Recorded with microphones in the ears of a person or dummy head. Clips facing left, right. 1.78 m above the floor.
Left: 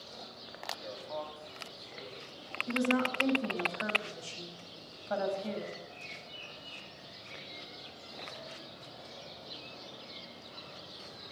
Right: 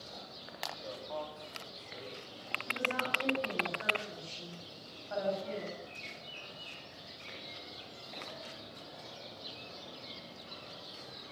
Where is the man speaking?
Centre (ahead or behind), 4 m; by 2.2 s 5° right (ahead or behind), 5.5 m.